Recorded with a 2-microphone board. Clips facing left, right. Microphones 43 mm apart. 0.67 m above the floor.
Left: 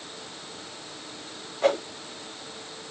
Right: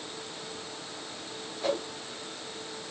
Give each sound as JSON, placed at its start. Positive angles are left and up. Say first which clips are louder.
{"t": 1.6, "sound": "a whoosh", "louder": "left 7 dB", "side_deg": 50, "distance_m": 1.3}